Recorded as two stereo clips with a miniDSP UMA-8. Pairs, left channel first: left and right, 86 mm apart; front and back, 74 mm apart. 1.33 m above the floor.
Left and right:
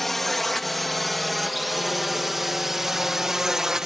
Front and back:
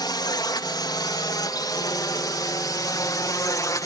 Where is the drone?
Straight ahead; by 3.9 s 10° right.